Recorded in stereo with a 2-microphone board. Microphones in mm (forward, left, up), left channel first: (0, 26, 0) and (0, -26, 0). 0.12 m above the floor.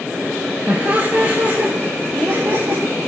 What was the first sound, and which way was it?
Laughter, 30° right (ahead or behind).